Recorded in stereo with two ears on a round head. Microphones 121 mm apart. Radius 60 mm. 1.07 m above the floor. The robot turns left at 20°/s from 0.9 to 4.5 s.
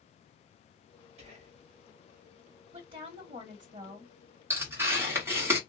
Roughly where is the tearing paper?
Centre.